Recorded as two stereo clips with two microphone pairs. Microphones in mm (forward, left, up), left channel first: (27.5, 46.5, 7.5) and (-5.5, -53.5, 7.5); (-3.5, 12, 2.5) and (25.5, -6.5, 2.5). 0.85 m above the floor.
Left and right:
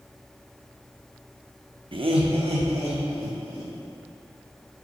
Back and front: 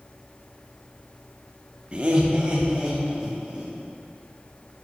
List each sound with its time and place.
1.9 s laughter: 85° right, 0.6 m; by 3.7 s 90° right, 1.8 m